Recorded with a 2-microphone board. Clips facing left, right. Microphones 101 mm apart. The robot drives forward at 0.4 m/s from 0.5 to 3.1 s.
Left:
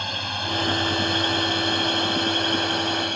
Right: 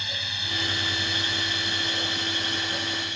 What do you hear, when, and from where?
0.0 s a drone: 55° left (ahead or behind); by 3.2 s 60° left (ahead or behind)